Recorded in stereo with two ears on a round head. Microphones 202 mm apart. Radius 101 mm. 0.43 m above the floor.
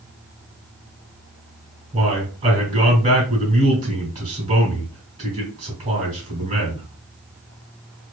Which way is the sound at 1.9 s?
30° right (ahead or behind).